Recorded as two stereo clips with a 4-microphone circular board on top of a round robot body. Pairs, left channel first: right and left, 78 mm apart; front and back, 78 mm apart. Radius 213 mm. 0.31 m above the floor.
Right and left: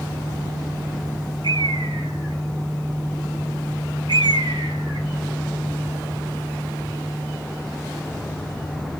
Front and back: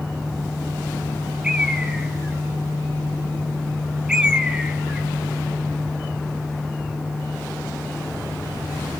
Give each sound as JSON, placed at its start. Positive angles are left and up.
{"t": 1.4, "sound": "a bird", "azimuth_deg": 100, "distance_m": 1.4}